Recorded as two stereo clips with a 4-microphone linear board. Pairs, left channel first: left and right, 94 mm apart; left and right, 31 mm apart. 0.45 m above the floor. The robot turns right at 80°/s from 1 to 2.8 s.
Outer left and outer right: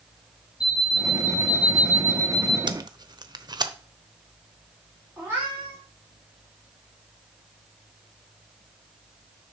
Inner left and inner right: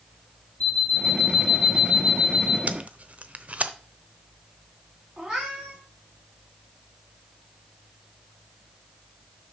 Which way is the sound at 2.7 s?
55° right (ahead or behind).